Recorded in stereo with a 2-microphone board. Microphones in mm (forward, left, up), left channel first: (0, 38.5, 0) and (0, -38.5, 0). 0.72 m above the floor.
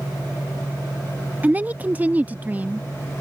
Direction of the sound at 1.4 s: 25° right (ahead or behind).